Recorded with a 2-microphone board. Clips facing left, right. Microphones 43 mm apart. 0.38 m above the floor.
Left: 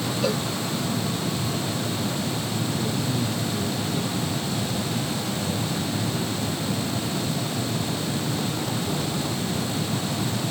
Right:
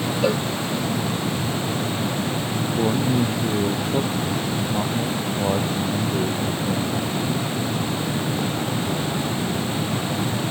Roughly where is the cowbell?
Centre.